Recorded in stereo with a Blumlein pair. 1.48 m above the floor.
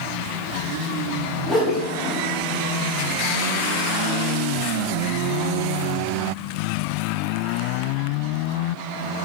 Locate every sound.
1.5 s a whoosh: 20° left, 3 m